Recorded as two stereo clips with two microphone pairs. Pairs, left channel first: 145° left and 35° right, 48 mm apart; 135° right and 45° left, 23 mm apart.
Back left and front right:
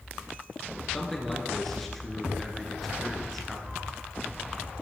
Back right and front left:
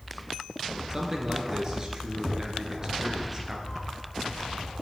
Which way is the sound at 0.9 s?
70° left.